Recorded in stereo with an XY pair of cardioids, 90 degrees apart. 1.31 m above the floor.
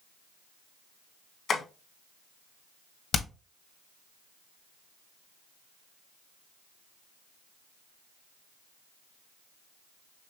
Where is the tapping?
65° left, 1.6 m.